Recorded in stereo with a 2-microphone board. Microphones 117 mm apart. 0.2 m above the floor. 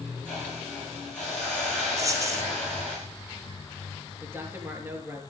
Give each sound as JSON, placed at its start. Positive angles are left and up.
{"t": 0.2, "sound": "a hiss", "side_deg": 10, "distance_m": 7.5}
{"t": 2.0, "sound": "a dropped coin", "side_deg": -30, "distance_m": 2.0}
{"t": 4.2, "sound": "a man speaking", "side_deg": -20, "distance_m": 4.0}